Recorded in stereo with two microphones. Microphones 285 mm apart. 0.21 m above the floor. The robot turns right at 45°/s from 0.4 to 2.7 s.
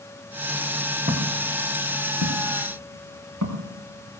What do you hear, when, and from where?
1.1 s footsteps: 30° right (ahead or behind), 3.5 m; by 4.2 s 85° right, 6 m